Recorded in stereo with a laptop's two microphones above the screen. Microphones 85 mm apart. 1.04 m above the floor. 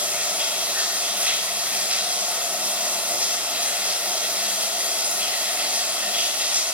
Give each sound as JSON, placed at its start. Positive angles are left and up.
{"t": 0.0, "sound": "running water", "side_deg": -20, "distance_m": 1.7}